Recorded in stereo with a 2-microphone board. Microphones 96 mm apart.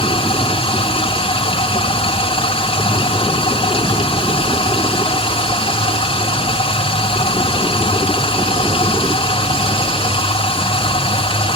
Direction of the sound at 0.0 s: 65° left (ahead or behind).